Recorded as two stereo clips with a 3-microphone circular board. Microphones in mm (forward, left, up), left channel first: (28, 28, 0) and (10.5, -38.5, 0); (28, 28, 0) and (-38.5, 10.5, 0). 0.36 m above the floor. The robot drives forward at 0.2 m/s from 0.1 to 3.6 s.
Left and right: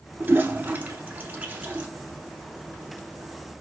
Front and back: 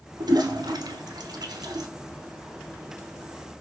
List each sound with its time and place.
0.2 s a toilet flushing: 165° right, 0.6 m; by 1.9 s 170° right, 0.9 m